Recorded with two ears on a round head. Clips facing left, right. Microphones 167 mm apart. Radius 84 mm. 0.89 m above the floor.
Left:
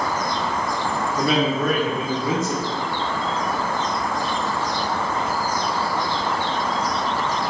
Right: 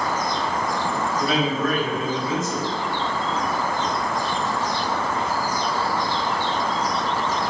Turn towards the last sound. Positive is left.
turn(degrees=55)  # may be behind; listen again after turning